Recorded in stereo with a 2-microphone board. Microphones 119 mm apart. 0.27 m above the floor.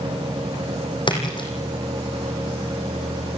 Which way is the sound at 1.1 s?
40° left (ahead or behind).